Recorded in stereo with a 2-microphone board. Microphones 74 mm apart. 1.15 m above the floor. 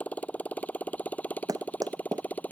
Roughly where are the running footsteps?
Right.